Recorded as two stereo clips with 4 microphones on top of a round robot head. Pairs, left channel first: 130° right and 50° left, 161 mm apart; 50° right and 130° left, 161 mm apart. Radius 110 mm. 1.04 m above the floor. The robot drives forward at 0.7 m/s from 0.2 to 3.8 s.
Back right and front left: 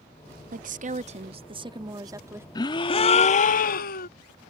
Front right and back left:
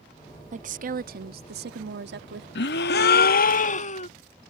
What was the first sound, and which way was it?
A woman speaking, 85° left.